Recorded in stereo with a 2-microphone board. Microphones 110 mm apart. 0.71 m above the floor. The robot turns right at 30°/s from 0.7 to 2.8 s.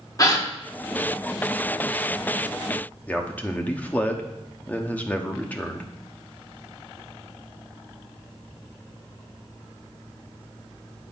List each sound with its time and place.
0.2 s a gasp: 35° left (ahead or behind), 1.1 m
3.1 s a man speaking: 15° left (ahead or behind), 1.0 m